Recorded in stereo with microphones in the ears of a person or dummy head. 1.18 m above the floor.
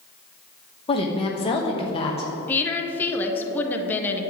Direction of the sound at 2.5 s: 10° left (ahead or behind).